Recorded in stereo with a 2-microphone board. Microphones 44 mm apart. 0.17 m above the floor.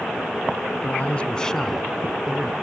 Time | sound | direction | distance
0.8 | a man speaking | 40° left (ahead or behind) | 1.3 m